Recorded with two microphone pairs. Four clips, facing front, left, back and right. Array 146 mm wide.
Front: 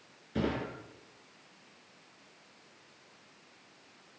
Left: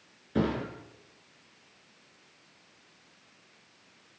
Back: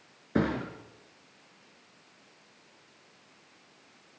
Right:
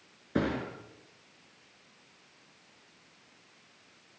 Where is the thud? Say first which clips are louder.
Left 2 dB, back 4 dB; 160° right, 5 m.